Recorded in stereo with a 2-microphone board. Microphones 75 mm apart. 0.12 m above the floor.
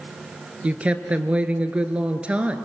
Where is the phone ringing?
No phone ringing in this recording.